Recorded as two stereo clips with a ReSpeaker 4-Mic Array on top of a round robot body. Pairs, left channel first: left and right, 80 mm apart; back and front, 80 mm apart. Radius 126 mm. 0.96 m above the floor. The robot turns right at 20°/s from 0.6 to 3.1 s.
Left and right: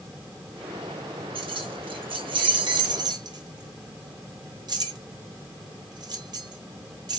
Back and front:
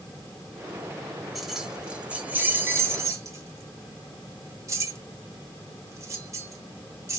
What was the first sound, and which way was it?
Keys jangling, 90° right.